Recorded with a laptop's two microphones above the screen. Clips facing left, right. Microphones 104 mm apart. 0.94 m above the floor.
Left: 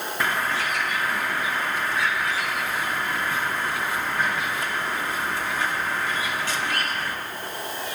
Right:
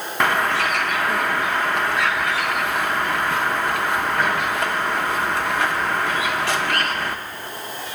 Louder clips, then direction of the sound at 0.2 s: Right 7 dB; 65° right (ahead or behind).